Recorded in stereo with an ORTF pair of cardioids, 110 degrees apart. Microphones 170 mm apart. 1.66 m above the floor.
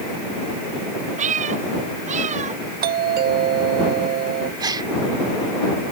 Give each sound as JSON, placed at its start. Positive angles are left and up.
{"t": 1.2, "sound": "a cat meowing", "azimuth_deg": -45}
{"t": 2.8, "sound": "a doorbell", "azimuth_deg": -60}
{"t": 4.6, "sound": "a gasp", "azimuth_deg": -25}